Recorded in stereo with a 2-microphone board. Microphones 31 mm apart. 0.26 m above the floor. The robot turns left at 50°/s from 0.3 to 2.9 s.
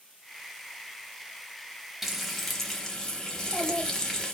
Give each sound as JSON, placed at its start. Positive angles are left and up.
{"t": 2.0, "sound": "frying", "azimuth_deg": -165, "distance_m": 0.8}
{"t": 3.3, "sound": "a child speaking", "side_deg": -15, "distance_m": 1.0}